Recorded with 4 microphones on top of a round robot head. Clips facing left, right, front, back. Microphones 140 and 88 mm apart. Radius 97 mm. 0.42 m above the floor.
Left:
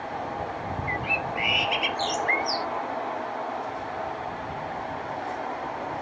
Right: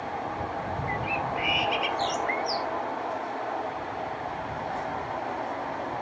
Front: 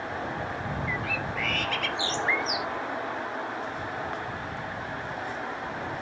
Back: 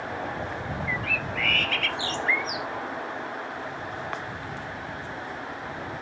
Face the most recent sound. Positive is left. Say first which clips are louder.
# right 1 dB, even
turn(degrees=70)